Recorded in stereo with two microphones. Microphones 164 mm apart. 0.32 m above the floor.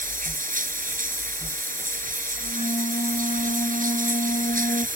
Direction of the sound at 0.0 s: 60° right (ahead or behind).